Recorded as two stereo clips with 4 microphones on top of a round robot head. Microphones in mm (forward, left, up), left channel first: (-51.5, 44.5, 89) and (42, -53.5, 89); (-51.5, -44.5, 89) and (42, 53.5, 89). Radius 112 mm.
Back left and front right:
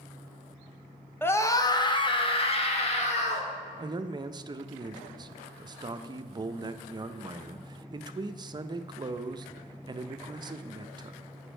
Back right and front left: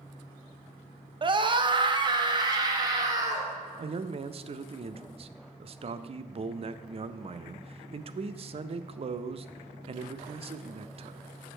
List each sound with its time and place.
1.2 s a scream: 65° left, 0.9 m; by 3.5 s 105° left, 1.9 m
3.8 s a man speaking: 10° left, 0.5 m